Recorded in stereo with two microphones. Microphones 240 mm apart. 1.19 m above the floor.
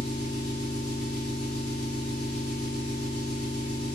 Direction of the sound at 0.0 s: 75° left (ahead or behind).